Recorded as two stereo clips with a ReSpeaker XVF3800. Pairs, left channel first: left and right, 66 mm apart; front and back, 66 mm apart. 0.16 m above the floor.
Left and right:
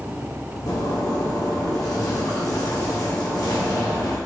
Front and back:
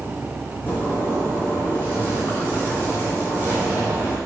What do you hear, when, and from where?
0.7 s a zipper: 60° left, 1.8 m